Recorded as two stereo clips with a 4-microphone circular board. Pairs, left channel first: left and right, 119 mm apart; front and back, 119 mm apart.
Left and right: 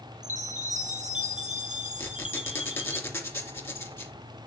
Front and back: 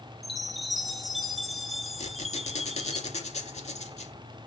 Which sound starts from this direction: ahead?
A squeak, at 2.0 s.